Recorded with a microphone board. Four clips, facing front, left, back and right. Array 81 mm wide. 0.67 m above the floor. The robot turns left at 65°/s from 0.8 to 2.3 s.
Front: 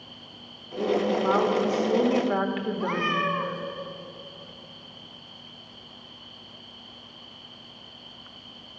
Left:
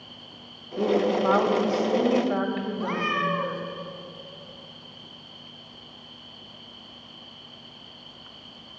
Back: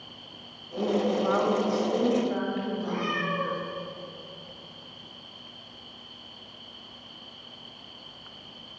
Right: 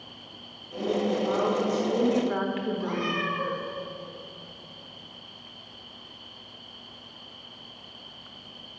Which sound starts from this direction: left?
A woman speaking, at 0.8 s.